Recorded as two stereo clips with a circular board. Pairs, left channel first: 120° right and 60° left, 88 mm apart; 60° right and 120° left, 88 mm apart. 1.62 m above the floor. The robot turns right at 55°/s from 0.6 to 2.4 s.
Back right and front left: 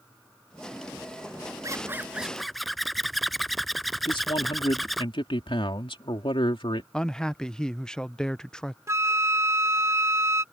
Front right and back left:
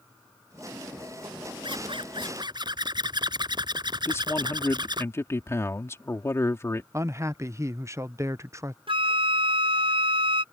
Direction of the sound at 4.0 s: 120° right.